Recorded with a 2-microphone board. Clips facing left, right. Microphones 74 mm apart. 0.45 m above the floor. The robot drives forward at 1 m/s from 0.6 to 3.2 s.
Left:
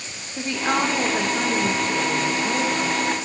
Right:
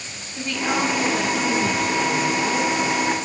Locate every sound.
0.4 s a woman speaking: 25° left (ahead or behind), 0.9 m; by 3.0 s 10° left (ahead or behind), 2.5 m